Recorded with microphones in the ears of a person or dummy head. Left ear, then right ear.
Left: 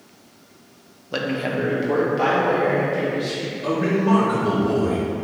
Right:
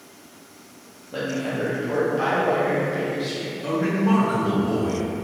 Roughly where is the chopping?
No chopping in this recording.